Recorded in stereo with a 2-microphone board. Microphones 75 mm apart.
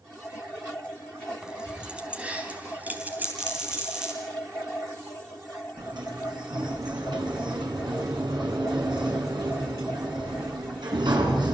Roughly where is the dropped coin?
Centre.